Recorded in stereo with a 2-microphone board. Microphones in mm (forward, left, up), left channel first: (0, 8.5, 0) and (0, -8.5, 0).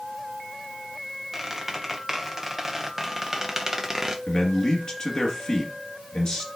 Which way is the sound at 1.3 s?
15° right (ahead or behind).